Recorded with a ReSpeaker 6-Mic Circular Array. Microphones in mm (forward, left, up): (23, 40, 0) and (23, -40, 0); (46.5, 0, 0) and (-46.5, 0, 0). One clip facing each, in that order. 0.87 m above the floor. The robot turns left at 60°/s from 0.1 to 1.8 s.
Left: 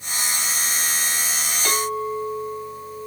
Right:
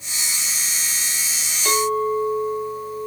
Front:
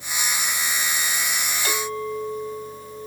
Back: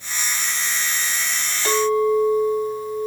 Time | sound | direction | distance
1.6 | a clink | 110° left | 2.0 m